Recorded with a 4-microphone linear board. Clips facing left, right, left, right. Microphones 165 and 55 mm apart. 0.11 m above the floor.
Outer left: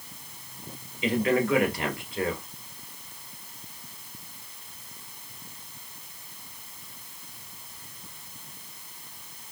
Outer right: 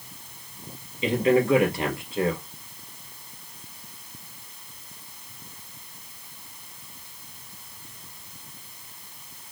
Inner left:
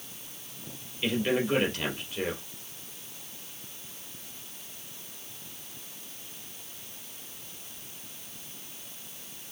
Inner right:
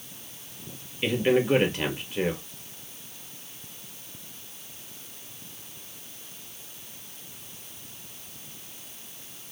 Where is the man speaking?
25° right (ahead or behind), 1.9 m.